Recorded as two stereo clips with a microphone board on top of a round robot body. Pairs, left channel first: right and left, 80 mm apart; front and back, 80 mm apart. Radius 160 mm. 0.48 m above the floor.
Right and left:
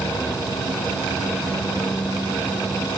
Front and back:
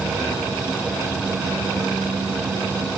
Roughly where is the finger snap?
I don't hear a finger snap.